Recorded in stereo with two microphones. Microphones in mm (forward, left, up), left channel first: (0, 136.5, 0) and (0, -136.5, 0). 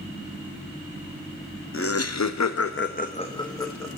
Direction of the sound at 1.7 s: 50° left (ahead or behind).